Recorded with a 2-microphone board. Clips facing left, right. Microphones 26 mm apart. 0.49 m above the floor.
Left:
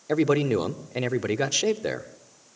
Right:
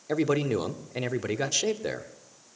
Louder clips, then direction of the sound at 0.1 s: Left 4 dB; 15° left (ahead or behind).